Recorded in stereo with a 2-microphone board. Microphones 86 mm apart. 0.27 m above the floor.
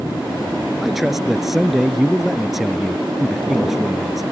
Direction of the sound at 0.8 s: 5° right (ahead or behind).